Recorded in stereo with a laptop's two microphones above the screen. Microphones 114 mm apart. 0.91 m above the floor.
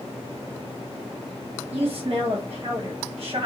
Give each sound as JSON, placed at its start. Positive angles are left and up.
{"t": 1.7, "sound": "a woman speaking", "side_deg": -50, "distance_m": 0.7}